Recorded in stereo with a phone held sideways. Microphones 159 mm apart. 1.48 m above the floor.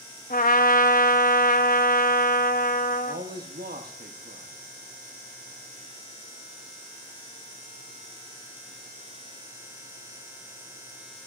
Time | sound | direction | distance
0.3 | a trumpet | 65° left (ahead or behind) | 0.6 m
3.0 | a man speaking | 80° right | 0.9 m